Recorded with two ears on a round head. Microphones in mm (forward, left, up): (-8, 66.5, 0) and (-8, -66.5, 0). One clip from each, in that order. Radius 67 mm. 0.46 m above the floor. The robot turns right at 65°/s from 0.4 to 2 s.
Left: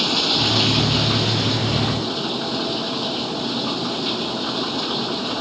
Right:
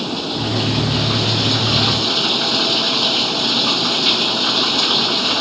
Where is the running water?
135° left; by 5.4 s 120° right.